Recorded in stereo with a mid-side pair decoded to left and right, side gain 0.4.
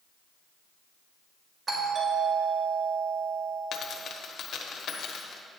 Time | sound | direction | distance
1.7 | a doorbell | 40° right | 3 m
3.7 | a dropped coin | 65° left | 1.2 m